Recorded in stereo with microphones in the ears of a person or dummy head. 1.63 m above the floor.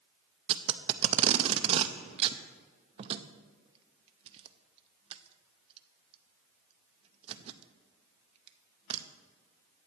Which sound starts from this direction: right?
Tape being pulled, at 0.5 s.